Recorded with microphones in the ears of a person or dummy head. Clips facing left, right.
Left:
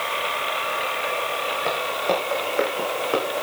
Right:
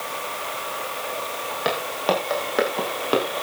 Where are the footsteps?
75° right (ahead or behind), 8 m; by 3.3 s 80° right, 7.5 m.